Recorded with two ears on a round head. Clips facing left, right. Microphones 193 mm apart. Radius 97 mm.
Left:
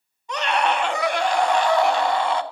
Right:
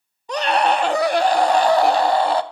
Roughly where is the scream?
Right.